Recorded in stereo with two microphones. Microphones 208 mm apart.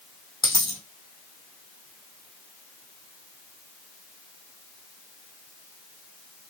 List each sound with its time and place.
0.4 s a dropped coin: 20° left (ahead or behind), 1.7 m